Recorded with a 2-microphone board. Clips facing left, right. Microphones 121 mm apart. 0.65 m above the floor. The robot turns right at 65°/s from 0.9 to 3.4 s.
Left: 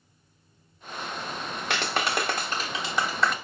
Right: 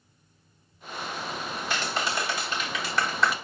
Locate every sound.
1.7 s a clap: 80° left, 1.1 m; by 3.4 s 175° right, 1.1 m